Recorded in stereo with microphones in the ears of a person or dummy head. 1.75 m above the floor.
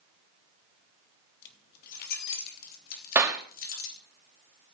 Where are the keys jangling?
50° left (ahead or behind), 1.8 m.